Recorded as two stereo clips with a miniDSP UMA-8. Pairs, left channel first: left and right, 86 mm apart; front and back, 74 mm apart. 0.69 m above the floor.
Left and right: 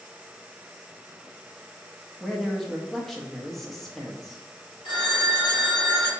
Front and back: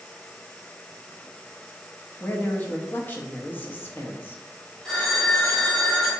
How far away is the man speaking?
About 0.6 m.